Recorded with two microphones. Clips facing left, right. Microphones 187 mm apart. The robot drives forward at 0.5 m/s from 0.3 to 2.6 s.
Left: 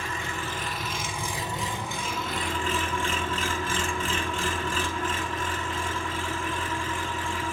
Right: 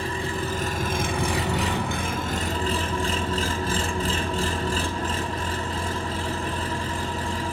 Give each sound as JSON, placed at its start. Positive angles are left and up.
{"t": 0.0, "sound": "an engine running", "side_deg": -35, "distance_m": 0.8}